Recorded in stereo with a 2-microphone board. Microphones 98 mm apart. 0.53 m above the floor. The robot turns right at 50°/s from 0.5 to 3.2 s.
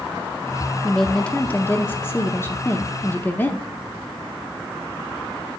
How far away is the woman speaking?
About 0.7 m.